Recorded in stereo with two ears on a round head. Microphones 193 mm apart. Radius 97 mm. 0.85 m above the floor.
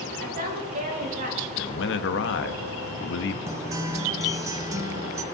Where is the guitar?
15° right (ahead or behind), 0.8 m.